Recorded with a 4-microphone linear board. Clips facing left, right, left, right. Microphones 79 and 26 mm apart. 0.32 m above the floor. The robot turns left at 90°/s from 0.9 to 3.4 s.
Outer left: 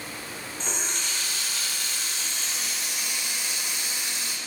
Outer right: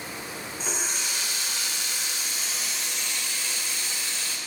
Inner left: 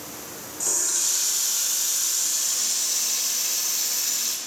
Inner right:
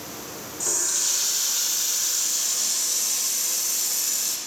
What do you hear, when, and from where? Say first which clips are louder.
0.6 s a running tap: even, even; 5° right (ahead or behind), 0.5 m; by 4.4 s 15° left (ahead or behind), 0.5 m